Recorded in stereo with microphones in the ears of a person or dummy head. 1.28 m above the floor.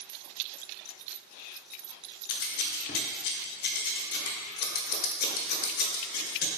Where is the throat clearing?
No throat clearing in this recording.